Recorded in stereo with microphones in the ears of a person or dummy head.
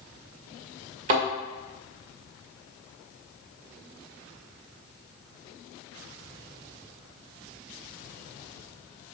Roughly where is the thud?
Right.